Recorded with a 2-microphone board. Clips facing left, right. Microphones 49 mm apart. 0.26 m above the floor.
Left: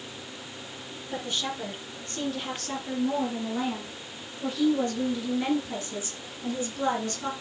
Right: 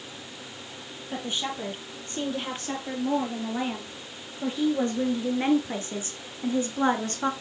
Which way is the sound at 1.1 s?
25° right (ahead or behind).